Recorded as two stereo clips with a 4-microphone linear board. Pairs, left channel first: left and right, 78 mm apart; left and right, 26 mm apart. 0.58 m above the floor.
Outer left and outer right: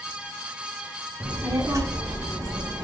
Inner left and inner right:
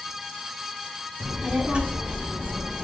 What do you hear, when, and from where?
1.2 s a child speaking: 30° right (ahead or behind), 0.9 m; by 2.9 s 60° right (ahead or behind), 0.8 m